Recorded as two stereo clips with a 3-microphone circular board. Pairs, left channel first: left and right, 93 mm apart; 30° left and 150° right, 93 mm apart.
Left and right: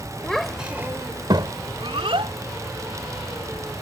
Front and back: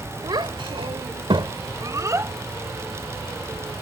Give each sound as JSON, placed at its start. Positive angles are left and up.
{"t": 0.2, "sound": "a child speaking", "azimuth_deg": 175}